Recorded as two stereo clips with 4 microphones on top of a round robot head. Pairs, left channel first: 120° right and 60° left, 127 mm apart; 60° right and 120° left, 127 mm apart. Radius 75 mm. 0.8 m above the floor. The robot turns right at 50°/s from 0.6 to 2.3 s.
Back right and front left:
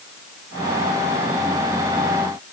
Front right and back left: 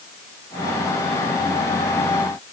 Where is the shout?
I don't hear a shout.